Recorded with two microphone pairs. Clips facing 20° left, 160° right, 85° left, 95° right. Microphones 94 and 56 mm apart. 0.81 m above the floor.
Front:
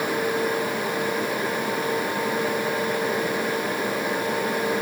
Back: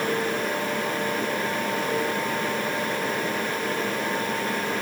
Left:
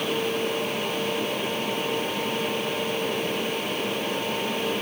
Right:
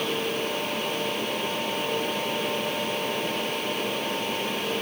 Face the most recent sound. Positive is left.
No sound to turn to.